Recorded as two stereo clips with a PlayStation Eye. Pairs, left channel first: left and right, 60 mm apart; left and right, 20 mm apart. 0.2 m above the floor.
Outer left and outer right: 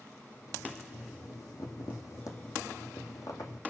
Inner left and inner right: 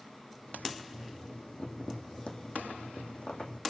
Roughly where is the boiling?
Left.